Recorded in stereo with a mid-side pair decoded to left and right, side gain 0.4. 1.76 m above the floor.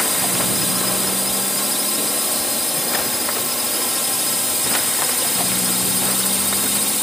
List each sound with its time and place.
0.0 s a drone: 5° left